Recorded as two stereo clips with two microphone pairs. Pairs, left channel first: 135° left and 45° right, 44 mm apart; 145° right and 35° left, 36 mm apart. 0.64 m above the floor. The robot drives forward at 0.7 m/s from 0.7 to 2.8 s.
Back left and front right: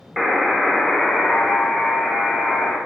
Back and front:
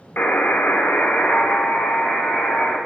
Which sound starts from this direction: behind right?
A buzzer, at 0.2 s.